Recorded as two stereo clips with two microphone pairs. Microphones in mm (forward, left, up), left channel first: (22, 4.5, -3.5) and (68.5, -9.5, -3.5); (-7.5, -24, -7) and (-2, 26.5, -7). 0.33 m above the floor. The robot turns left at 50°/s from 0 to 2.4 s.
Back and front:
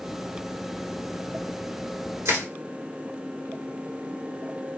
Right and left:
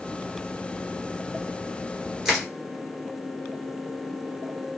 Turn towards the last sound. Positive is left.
turn(degrees=-5)